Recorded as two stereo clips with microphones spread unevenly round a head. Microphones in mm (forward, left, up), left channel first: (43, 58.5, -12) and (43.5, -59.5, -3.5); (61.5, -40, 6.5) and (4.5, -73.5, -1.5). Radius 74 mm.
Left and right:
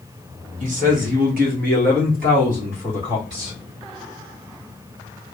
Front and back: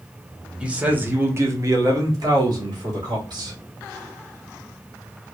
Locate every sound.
0.6 s a man speaking: 75° right, 1.3 m; by 3.6 s 150° right, 2 m